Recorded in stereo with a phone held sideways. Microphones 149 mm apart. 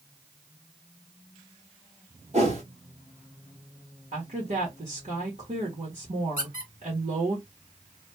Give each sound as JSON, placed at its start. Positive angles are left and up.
{"t": 2.3, "sound": "a whoosh", "side_deg": -50, "distance_m": 1.3}
{"t": 4.1, "sound": "a woman speaking", "side_deg": -60, "distance_m": 1.7}
{"t": 6.4, "sound": "a squeak", "side_deg": -85, "distance_m": 1.8}